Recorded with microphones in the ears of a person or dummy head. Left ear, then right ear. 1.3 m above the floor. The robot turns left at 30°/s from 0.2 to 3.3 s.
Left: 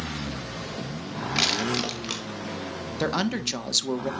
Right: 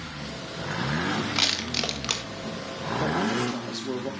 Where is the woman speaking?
55° left (ahead or behind), 1.6 m; by 4.1 s 45° left (ahead or behind), 1.6 m.